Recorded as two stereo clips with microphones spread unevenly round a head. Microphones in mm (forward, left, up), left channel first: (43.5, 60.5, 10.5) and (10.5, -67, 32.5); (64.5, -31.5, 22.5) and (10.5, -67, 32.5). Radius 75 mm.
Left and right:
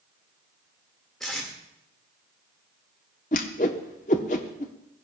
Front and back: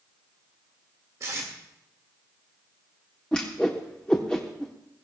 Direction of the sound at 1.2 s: 155° left.